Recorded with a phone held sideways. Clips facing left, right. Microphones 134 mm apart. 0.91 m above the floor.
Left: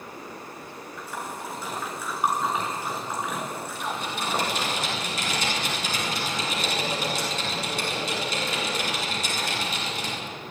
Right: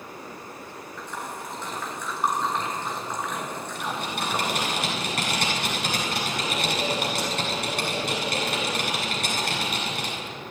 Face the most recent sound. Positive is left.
turn(degrees=-60)  # may be behind; listen again after turning